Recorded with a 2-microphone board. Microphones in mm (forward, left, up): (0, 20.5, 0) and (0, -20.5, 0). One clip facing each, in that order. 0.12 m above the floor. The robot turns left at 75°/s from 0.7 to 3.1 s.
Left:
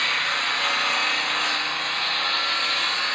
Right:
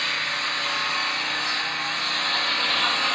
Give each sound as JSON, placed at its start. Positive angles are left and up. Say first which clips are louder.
{"t": 0.0, "sound": "an engine running", "louder": "left 3 dB", "azimuth_deg": 125, "distance_m": 1.1}